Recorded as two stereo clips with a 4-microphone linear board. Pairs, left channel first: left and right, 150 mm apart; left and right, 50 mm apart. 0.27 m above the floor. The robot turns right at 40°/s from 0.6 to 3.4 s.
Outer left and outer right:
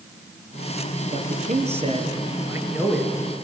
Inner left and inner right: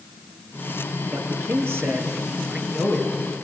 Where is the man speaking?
75° right, 4 m; by 3.1 s 5° left, 4 m.